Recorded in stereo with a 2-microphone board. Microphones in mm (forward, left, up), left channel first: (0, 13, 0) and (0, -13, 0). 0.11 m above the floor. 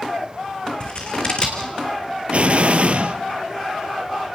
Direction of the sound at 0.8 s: 40° left (ahead or behind).